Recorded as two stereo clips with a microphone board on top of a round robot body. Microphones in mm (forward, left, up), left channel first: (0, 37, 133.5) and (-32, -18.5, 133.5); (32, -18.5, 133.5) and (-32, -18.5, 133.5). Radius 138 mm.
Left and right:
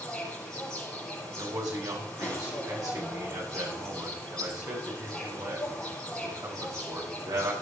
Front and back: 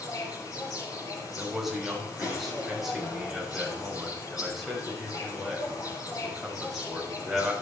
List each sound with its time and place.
0.0 s an insect: 20° right, 9 m
1.4 s a man speaking: 95° right, 6.5 m